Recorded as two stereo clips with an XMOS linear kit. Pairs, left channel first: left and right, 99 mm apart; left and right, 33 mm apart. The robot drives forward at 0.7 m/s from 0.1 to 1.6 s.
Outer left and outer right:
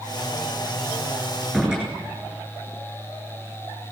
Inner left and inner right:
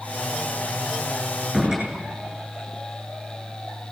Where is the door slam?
10° right (ahead or behind), 7.5 m.